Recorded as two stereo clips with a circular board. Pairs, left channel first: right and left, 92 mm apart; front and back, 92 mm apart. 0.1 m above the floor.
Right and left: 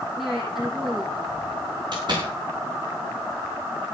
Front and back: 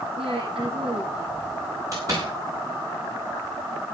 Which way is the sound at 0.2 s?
175° left.